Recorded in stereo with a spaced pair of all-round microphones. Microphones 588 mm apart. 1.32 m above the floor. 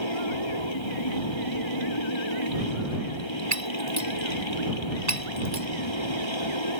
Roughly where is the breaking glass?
Right.